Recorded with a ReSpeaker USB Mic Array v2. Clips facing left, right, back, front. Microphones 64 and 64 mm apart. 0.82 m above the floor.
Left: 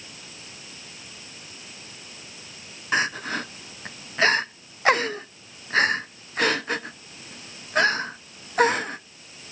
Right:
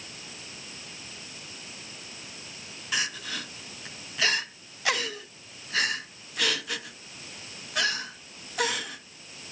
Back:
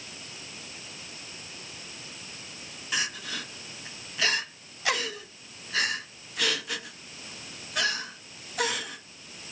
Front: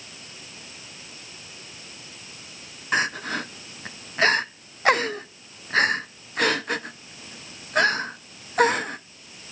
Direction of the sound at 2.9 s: 40° left.